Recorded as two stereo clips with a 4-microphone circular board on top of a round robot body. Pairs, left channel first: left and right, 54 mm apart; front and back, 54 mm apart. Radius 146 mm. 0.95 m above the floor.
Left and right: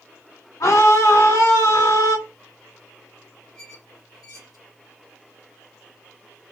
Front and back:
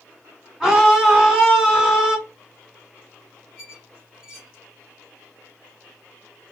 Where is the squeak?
95° left, 3 m.